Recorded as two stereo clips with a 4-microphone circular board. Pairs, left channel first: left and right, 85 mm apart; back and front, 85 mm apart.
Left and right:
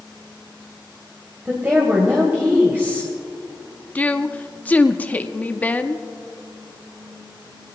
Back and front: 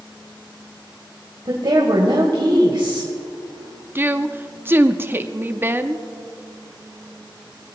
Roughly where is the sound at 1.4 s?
Ahead right.